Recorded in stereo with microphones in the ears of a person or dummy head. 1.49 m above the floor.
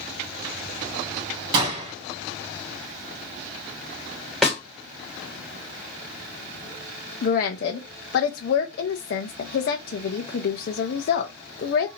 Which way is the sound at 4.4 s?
5° left (ahead or behind).